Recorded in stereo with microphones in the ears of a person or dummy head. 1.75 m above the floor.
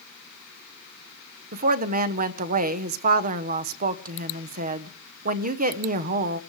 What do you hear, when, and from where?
1.5 s a woman speaking: 45° right (ahead or behind), 1.0 m